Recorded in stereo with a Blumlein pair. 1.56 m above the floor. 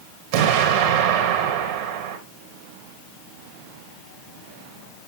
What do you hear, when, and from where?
0.3 s an explosion: 50° right, 3 m